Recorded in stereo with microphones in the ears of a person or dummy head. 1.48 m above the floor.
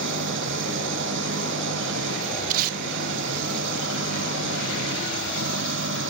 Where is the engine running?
65° right (ahead or behind).